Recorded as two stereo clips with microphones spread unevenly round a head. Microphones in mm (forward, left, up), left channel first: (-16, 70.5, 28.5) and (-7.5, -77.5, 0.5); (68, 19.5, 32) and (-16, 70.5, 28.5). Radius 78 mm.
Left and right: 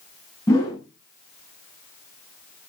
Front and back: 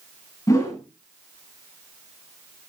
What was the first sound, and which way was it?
A whoosh, 25° left.